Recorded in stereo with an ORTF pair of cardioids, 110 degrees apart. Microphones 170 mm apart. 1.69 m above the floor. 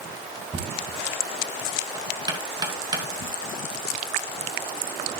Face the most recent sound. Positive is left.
turn(degrees=-25)